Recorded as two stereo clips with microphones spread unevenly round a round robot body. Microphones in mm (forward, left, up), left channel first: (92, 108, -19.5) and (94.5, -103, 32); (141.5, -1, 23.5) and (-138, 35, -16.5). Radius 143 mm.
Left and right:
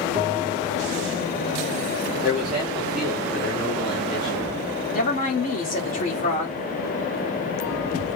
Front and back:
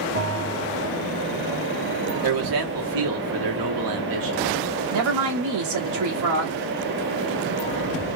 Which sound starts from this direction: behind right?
A bell, at 0.1 s.